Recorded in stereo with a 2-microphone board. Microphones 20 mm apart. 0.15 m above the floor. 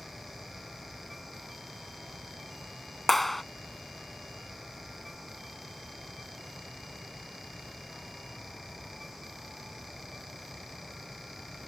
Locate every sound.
3.1 s a clap: 5° left (ahead or behind)